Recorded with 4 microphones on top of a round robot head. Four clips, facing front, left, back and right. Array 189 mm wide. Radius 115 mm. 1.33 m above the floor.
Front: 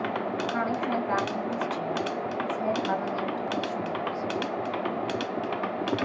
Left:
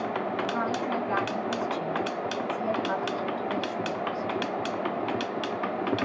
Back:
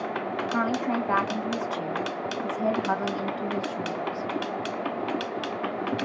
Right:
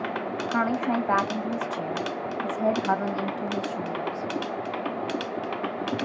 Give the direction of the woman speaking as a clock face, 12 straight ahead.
4 o'clock.